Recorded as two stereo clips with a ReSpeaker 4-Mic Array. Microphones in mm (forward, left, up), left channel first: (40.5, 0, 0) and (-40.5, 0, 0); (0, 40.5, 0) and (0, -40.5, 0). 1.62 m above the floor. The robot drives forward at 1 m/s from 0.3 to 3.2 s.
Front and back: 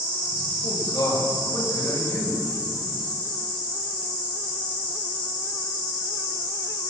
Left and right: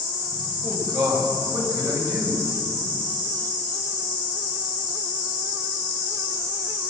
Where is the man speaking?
40° right, 7.5 m; by 2.4 s 55° right, 6.5 m.